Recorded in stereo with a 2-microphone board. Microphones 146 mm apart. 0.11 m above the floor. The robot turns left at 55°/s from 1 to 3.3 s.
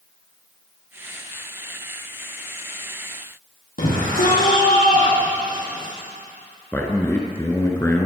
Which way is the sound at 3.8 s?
70° left (ahead or behind).